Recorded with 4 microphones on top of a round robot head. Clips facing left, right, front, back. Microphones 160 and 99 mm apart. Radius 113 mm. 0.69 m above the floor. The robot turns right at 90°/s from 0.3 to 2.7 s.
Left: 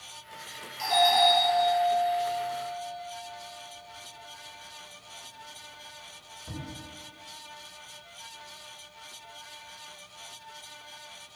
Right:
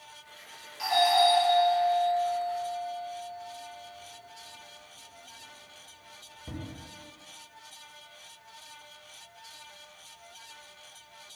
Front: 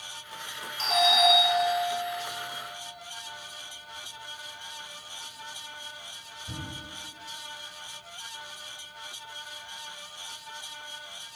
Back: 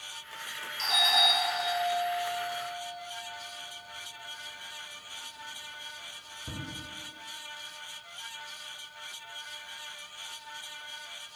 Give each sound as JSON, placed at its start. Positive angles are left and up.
{"t": 0.8, "sound": "a doorbell", "azimuth_deg": 35, "distance_m": 3.0}